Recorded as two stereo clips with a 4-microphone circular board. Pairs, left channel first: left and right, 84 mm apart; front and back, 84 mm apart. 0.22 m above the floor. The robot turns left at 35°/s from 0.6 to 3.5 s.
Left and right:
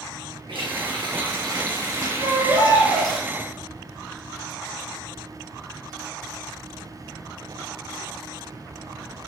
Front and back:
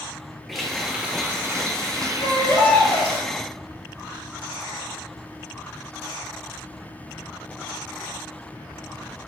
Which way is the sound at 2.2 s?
45° right.